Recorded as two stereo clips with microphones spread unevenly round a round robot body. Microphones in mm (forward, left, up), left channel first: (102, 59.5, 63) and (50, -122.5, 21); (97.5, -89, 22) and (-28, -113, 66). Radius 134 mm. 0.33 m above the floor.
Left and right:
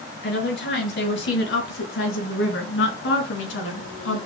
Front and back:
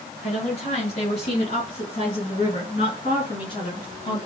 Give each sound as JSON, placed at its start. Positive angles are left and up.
{"t": 0.2, "sound": "a woman speaking", "azimuth_deg": 50, "distance_m": 6.0}